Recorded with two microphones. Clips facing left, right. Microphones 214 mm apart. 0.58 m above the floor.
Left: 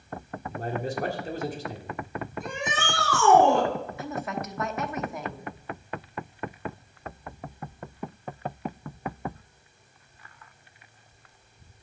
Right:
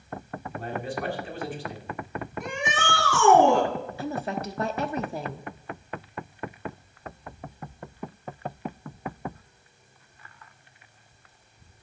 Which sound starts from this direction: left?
A man speaking, at 0.5 s.